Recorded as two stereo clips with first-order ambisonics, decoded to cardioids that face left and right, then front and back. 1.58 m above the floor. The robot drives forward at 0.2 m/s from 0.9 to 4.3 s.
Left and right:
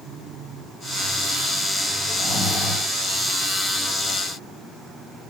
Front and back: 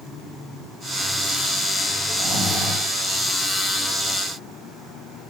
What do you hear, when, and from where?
2.1 s snoring: 85° right, 1.4 m; by 2.9 s 100° right, 1.4 m